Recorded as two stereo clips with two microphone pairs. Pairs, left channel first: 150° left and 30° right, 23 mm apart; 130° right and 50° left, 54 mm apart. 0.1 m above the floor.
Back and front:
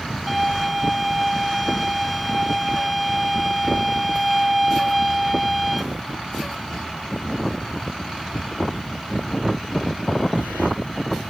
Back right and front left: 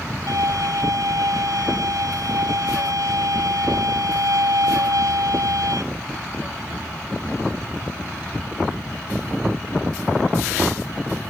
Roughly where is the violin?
Ahead left.